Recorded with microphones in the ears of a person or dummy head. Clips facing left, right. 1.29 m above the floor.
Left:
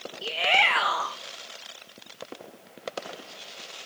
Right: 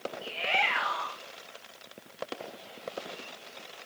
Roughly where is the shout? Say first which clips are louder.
Left 8 dB; left.